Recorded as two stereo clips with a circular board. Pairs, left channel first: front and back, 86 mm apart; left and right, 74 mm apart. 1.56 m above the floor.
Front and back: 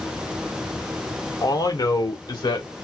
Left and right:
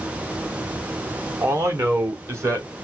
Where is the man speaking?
45° right, 1.1 m; by 2.7 s 40° right, 2 m.